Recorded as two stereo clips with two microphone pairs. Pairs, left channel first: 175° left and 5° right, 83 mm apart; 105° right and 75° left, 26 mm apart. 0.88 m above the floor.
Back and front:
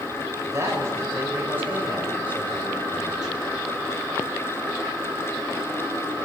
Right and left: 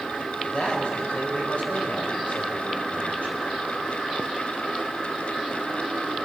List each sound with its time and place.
0.4 s a man speaking: 60° right, 4 m; by 3.6 s 95° right, 4 m